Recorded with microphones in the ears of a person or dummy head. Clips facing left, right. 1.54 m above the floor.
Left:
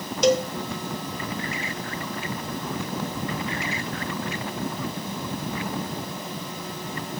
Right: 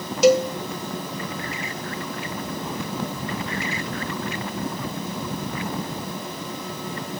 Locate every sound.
0.2 s a cowbell: 5° right (ahead or behind), 1.3 m